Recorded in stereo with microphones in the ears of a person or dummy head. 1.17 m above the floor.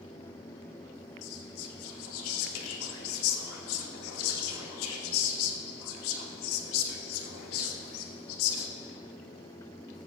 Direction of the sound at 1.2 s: 70° left (ahead or behind).